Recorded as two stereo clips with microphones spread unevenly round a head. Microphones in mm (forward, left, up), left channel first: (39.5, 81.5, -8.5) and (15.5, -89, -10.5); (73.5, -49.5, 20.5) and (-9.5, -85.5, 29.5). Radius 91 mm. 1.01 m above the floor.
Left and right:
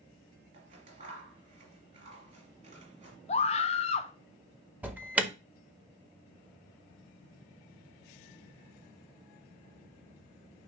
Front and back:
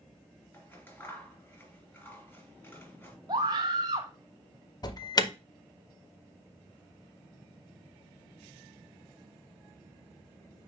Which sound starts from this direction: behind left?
A scream, at 3.3 s.